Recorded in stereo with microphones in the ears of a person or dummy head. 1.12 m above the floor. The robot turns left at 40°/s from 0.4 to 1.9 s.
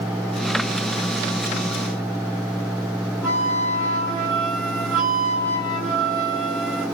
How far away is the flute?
About 1.0 m.